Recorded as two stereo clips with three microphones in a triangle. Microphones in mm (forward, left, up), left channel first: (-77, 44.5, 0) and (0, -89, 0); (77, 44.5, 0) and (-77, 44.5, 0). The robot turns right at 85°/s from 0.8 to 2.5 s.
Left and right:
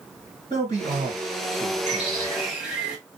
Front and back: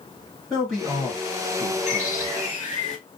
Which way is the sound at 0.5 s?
90° right.